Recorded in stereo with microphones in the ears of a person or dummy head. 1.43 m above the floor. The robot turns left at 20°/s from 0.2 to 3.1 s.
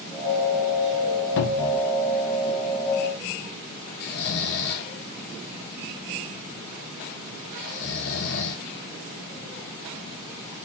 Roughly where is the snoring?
Left.